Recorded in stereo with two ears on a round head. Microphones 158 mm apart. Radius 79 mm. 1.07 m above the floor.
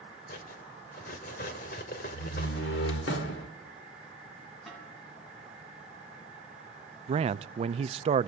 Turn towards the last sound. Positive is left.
turn(degrees=-35)  # may be behind; listen again after turning